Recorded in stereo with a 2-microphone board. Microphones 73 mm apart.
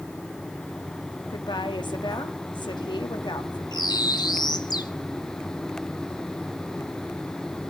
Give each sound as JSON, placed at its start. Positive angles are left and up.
{"t": 1.3, "sound": "a woman speaking", "side_deg": 85, "distance_m": 1.4}
{"t": 3.7, "sound": "a bird", "side_deg": 65, "distance_m": 0.9}